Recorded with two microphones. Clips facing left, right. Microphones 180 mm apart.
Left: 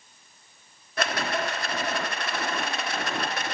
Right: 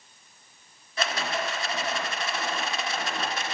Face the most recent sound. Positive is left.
turn(degrees=60)  # may be behind; listen again after turning